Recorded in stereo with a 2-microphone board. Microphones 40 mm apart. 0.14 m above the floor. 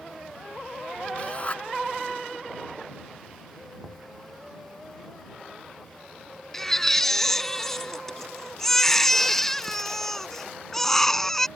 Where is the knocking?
5° right (ahead or behind).